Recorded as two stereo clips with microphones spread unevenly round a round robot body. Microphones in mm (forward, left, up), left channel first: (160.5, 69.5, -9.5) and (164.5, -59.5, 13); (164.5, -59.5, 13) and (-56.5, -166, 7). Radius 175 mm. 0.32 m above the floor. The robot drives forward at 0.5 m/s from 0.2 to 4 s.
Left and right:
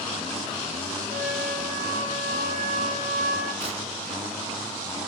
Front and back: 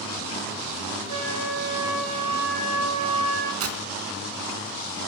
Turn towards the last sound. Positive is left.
turn(degrees=-140)